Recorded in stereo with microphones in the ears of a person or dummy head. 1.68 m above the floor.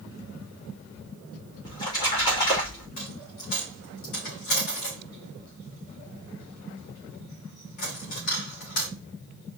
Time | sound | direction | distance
1.6 | a splash | 25° left (ahead or behind) | 2.5 m
3.0 | a dropped coin | 45° left (ahead or behind) | 3 m